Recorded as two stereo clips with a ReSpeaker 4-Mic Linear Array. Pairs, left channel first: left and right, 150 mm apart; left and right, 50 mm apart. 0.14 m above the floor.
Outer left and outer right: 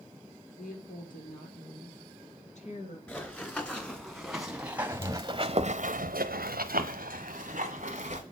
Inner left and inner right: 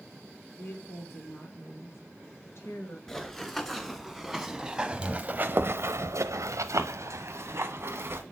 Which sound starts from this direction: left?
A woman speaking, at 0.6 s.